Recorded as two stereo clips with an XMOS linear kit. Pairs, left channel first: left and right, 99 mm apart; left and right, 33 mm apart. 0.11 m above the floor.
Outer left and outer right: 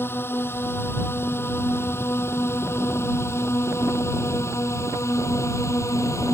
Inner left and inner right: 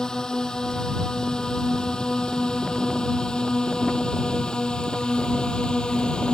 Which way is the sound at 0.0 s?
20° left (ahead or behind).